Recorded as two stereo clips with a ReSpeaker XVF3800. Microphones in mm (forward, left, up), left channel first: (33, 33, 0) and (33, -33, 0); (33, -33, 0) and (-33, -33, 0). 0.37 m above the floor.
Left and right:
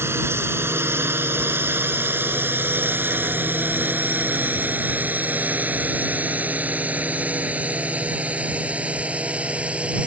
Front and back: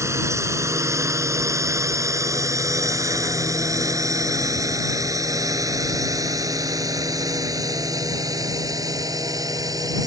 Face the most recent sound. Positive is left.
turn(degrees=-160)